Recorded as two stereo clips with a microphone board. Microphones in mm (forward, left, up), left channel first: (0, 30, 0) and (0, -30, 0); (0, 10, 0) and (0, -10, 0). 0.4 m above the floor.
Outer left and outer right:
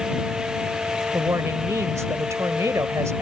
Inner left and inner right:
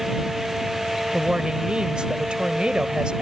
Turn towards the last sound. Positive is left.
turn(degrees=-55)  # may be behind; listen again after turning